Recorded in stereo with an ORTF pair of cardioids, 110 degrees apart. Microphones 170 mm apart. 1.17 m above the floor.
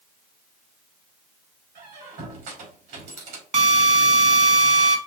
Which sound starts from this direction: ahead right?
A drill, at 3.5 s.